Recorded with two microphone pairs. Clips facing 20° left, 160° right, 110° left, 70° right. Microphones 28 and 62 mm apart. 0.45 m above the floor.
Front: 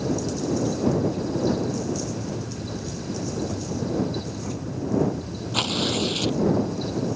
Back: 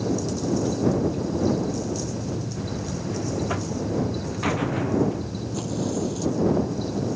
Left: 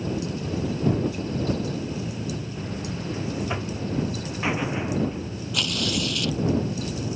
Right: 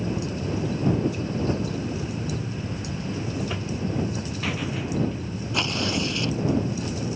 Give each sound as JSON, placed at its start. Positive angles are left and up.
{"t": 2.6, "sound": "a buzzer", "azimuth_deg": 175}
{"t": 5.5, "sound": "tearing paper", "azimuth_deg": -10}